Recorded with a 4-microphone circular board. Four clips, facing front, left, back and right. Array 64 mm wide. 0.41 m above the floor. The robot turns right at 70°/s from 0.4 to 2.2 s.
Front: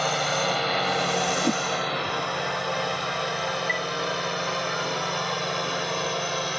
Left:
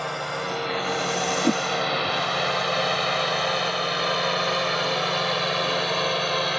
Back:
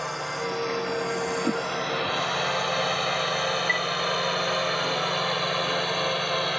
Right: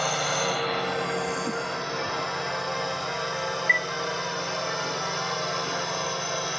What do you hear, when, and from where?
0.0 s a drone: 25° right; by 6.6 s 105° left
1.4 s a whoosh: 80° left; by 1.6 s 95° left
3.7 s a chime: 95° right